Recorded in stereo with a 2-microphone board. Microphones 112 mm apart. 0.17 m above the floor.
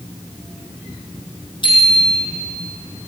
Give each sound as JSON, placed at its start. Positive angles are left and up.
{"t": 1.6, "sound": "a bicycle bell", "side_deg": 45, "distance_m": 4.5}